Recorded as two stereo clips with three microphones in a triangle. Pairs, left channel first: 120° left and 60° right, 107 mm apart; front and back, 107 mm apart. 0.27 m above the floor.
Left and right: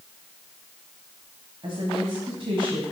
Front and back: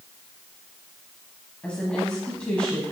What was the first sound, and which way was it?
A woman speaking, 75° right.